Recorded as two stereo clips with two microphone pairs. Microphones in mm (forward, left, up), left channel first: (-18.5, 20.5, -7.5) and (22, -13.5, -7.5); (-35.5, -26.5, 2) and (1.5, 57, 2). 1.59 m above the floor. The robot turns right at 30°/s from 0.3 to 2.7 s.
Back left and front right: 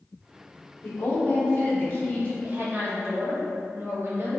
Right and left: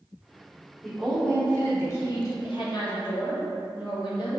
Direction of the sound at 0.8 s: 160° left.